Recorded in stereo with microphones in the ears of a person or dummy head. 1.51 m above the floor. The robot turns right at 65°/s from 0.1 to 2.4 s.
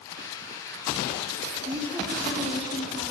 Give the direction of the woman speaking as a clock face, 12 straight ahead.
1 o'clock.